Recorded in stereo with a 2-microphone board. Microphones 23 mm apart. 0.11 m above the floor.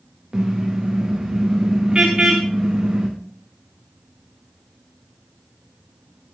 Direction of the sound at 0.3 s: 30° right (ahead or behind).